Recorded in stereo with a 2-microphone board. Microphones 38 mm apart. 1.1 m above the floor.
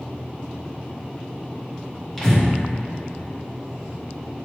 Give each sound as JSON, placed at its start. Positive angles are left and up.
{"t": 2.2, "sound": "breathing", "side_deg": 10, "distance_m": 1.5}